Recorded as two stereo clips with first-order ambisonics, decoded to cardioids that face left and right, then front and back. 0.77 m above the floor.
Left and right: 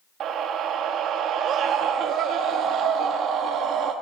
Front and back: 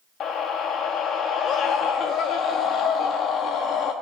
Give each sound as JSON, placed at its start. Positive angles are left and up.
{"t": 0.2, "sound": "a scream", "azimuth_deg": -50, "distance_m": 0.9}